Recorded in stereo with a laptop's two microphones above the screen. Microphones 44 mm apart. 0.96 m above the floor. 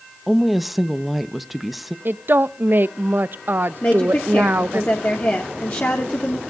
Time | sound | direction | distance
0.3 | a woman speaking | 5° right (ahead or behind) | 0.9 m
2.0 | a woman speaking | 50° right (ahead or behind) | 0.6 m
3.8 | a woman speaking | 45° left (ahead or behind) | 2 m